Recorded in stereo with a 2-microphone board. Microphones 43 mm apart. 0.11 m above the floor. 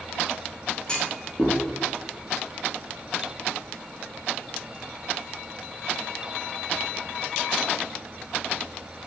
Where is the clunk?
20° left (ahead or behind), 1.7 m.